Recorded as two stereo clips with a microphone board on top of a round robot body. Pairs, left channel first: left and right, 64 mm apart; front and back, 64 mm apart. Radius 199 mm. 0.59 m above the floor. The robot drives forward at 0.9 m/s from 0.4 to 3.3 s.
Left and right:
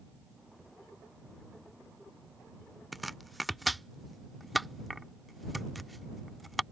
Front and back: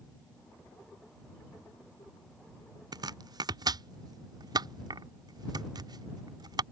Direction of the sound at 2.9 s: Straight behind.